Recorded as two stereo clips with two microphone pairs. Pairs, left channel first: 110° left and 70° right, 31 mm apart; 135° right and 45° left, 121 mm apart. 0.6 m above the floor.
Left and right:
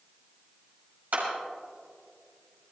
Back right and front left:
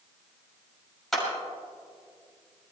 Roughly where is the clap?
Ahead right.